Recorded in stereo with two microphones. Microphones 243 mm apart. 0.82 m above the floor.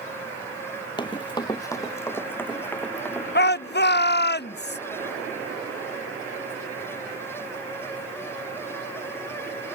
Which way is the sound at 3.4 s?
40° left (ahead or behind).